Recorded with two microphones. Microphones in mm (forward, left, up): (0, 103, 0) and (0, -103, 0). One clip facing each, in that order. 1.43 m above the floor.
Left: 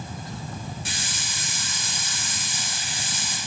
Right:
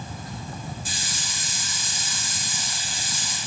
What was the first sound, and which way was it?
A hiss, 80° left.